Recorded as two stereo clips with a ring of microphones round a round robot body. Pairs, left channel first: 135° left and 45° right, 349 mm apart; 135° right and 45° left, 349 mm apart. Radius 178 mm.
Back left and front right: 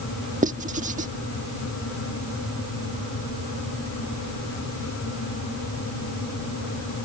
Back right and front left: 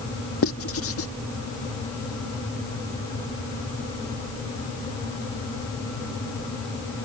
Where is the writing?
105° right.